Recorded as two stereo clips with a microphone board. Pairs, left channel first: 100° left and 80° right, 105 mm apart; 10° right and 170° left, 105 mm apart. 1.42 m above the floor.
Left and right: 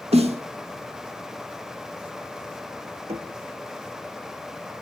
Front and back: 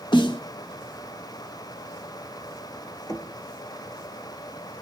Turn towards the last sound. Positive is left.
turn(degrees=-65)